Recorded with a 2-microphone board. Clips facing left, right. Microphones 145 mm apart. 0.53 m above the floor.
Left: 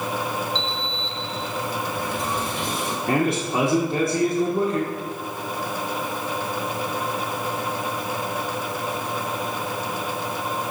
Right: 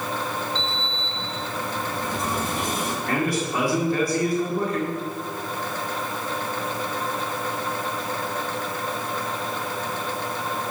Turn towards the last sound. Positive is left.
turn(degrees=25)  # may be behind; listen again after turning